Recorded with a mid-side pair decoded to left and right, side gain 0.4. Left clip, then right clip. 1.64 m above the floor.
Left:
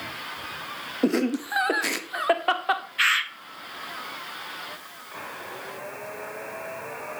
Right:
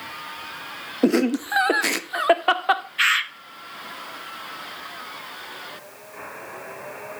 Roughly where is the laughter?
Ahead right.